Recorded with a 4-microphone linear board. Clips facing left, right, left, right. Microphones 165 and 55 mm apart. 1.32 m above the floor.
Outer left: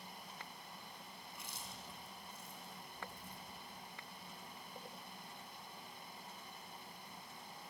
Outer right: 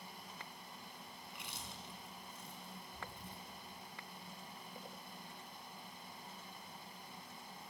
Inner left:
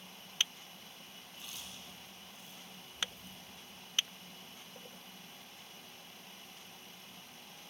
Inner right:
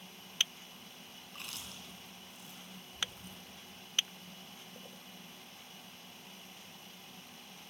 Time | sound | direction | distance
1.3 | chewing | 70° right (ahead or behind) | 4.5 m